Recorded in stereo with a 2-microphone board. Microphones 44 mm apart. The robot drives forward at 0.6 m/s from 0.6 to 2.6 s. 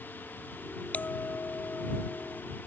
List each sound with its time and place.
0.9 s a bell: 40° left (ahead or behind); by 2.4 s 45° left (ahead or behind)